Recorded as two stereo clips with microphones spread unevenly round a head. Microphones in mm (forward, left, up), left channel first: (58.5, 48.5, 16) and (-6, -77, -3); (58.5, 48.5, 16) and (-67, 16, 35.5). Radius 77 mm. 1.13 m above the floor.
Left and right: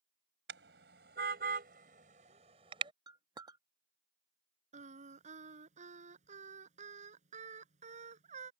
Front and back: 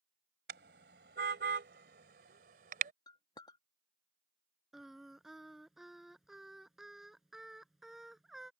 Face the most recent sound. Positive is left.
turn(degrees=-80)